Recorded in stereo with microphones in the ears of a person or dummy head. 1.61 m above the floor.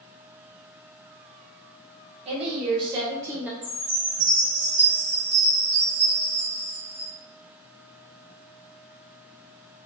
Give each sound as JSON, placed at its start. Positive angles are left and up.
{"t": 2.2, "sound": "a woman speaking", "side_deg": -35, "distance_m": 1.4}
{"t": 3.6, "sound": "a chime", "side_deg": -20, "distance_m": 0.7}